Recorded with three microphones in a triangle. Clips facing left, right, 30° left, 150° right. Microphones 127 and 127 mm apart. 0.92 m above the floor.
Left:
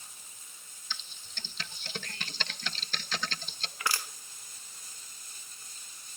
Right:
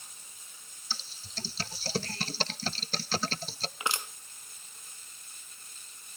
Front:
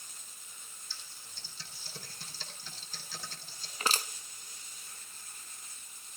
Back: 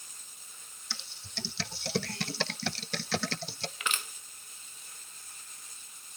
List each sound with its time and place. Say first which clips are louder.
0.9 s typing on a keyboard: right 3 dB, back 13 dB; 145° right, 0.6 m
3.8 s crushing: even, front 4 dB; 25° right, 1.2 m